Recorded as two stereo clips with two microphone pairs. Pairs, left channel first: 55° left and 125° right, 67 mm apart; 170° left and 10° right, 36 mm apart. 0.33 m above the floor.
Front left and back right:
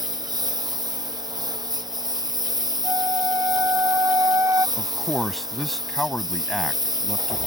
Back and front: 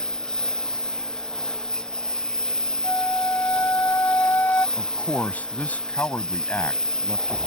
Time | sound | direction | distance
0.0 | a lawn mower | 120° right | ?
2.8 | a flute | 170° right | ?
4.8 | a man speaking | 145° left | ?